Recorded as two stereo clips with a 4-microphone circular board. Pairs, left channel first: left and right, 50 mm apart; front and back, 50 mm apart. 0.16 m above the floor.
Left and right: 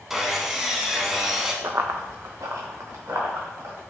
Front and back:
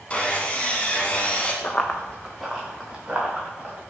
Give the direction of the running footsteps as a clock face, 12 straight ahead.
2 o'clock.